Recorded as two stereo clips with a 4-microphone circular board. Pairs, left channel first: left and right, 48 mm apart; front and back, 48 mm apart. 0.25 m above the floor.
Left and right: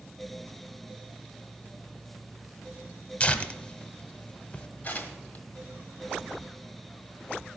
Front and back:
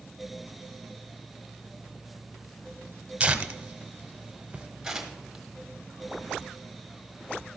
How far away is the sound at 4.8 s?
About 1.5 m.